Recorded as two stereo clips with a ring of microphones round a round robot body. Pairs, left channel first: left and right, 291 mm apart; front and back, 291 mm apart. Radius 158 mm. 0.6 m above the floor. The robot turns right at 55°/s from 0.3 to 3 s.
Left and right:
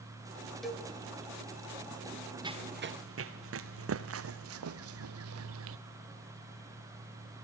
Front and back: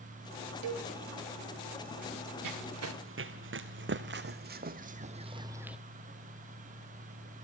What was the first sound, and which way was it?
A cowbell, straight behind.